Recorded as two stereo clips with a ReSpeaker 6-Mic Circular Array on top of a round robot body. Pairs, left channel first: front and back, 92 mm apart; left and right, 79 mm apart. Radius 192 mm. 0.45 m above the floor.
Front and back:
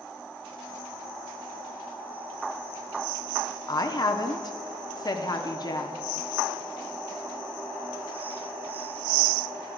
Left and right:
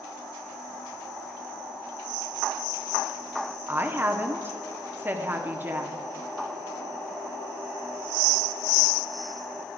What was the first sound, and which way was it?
A woman speaking, 30° right.